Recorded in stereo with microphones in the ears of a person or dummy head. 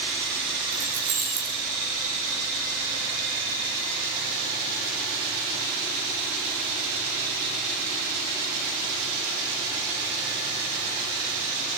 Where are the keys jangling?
50° right (ahead or behind), 7.5 m.